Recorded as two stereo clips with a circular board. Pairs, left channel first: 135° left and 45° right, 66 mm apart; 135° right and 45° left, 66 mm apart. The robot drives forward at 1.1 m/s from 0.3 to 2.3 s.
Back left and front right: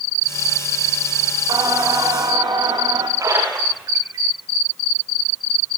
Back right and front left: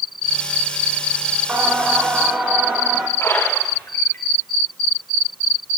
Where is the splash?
80° right, 9.5 m.